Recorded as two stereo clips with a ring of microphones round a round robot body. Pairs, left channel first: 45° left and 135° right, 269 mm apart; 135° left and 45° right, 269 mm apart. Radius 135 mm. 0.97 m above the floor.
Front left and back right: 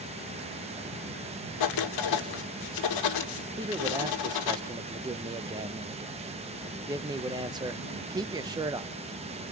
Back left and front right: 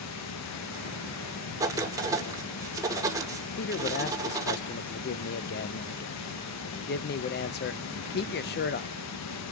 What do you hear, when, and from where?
0.0 s running water: 160° left, 0.9 m
1.6 s writing: 35° left, 1.4 m
3.6 s a man speaking: 155° left, 0.6 m